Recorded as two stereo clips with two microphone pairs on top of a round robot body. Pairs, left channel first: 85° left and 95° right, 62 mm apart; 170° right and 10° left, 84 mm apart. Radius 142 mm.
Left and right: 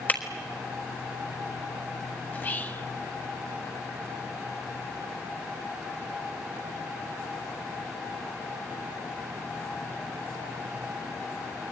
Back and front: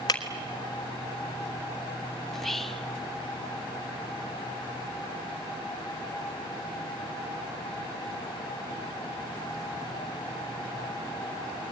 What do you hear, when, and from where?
0.1 s breaking glass: 150° left, 1.3 m
2.3 s whispering: 85° left, 1.1 m